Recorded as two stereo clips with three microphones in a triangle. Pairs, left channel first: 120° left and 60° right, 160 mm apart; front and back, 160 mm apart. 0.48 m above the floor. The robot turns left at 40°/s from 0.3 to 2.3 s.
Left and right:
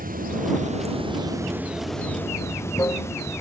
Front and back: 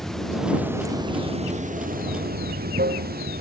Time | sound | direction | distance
0.0 | running water | 85° right | ?